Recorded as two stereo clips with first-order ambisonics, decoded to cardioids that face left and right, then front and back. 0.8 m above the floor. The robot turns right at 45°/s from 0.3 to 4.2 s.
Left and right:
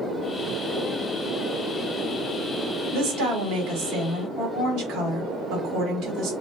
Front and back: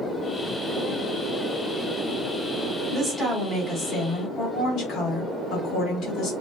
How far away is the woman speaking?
About 1.5 m.